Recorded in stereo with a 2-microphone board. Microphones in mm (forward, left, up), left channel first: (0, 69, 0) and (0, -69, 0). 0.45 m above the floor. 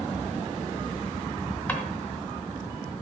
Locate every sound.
1.7 s a drawer: 10° left (ahead or behind), 1.8 m